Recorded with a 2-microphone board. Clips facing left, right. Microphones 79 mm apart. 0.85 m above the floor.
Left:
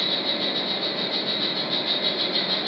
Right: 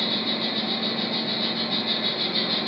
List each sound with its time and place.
0.0 s an insect: 70° left (ahead or behind), 1.9 m